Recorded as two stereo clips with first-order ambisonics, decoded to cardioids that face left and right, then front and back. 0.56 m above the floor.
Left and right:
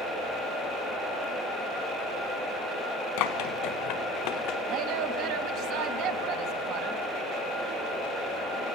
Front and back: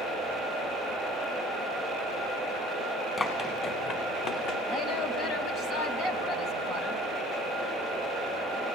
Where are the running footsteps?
70° left, 3.5 m; by 4.6 s 40° left, 3 m.